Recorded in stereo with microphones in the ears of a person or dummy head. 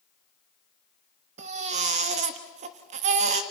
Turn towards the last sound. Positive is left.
turn(degrees=-45)  # may be behind; listen again after turning